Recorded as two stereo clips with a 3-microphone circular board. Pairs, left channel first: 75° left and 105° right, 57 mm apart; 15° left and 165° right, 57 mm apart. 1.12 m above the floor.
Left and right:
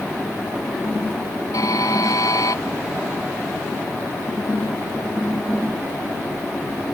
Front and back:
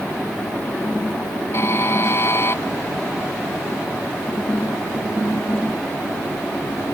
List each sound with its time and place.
1.5 s a buzzer: 60° left